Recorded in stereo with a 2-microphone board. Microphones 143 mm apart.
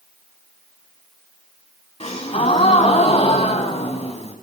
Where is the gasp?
50° left (ahead or behind), 1.0 m.